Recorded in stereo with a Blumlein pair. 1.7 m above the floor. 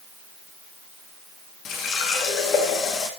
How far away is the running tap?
About 2 m.